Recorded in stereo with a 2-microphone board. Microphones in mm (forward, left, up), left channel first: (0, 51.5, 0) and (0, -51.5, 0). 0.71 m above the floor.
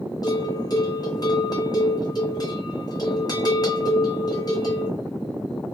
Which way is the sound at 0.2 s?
40° left (ahead or behind).